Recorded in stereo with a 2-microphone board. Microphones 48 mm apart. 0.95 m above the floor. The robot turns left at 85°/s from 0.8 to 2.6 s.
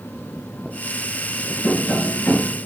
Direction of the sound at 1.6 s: 100° left.